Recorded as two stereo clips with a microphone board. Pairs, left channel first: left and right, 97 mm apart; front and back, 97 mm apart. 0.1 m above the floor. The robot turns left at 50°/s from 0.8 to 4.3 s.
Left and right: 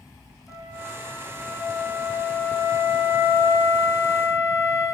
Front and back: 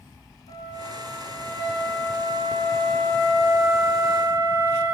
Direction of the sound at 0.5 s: 15° right.